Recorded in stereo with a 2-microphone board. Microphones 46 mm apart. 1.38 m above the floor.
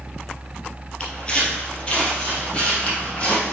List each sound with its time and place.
1.0 s footsteps: 20° left (ahead or behind), 1.8 m; by 3.5 s 25° left (ahead or behind), 3 m